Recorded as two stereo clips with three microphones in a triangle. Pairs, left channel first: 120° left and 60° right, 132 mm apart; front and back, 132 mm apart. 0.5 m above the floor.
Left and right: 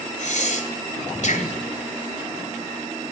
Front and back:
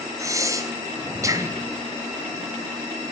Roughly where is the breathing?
Behind left.